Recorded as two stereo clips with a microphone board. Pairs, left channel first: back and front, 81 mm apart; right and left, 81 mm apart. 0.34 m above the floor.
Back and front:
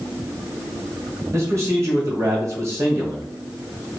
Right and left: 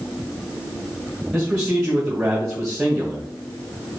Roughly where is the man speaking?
Ahead.